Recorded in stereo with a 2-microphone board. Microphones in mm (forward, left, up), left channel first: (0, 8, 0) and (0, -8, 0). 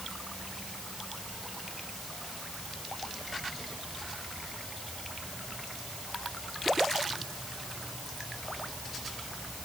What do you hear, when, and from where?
Only background noise.